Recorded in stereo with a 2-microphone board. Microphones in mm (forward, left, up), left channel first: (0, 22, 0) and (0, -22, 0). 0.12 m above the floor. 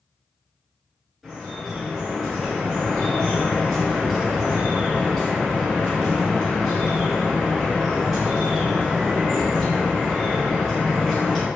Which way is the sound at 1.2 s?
Centre (ahead or behind).